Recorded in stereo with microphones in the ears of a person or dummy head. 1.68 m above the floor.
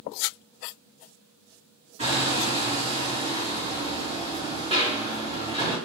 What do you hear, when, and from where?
2.0 s hammering: 30° right (ahead or behind), 4 m